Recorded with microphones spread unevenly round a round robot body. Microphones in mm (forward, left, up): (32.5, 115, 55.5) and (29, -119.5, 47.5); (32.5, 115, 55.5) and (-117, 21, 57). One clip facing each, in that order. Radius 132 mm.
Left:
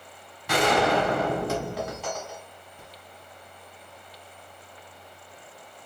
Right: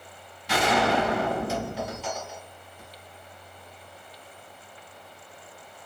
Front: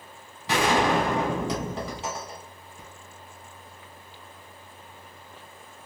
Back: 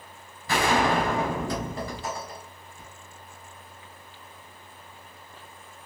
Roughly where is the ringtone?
I don't hear a ringtone.